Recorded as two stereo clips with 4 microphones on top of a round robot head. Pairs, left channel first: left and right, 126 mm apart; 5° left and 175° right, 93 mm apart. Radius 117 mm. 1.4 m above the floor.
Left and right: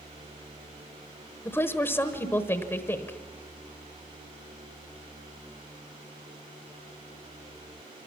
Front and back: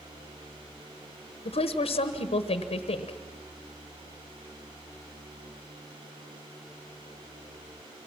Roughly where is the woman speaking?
Ahead.